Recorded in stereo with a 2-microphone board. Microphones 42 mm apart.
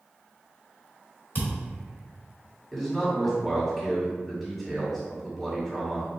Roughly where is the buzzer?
No buzzer in this recording.